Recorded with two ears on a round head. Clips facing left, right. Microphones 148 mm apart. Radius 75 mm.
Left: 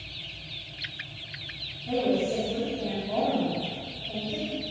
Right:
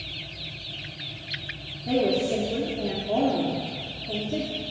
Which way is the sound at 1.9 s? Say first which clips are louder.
Right 2 dB; 65° right (ahead or behind).